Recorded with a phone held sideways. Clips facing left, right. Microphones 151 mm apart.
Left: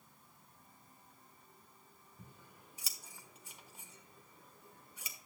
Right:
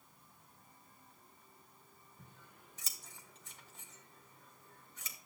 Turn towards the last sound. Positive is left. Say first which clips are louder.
# left 3 dB
turn(degrees=10)  # may be behind; listen again after turning